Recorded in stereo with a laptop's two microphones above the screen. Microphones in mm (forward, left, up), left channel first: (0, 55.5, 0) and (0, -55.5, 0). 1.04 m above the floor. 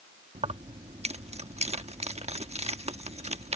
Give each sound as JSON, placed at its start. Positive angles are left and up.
{"t": 0.3, "sound": "keys jangling", "side_deg": -75}